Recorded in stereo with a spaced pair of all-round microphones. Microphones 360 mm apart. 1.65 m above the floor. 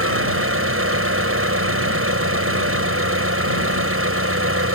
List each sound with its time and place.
0.0 s an engine running: 35° right (ahead or behind)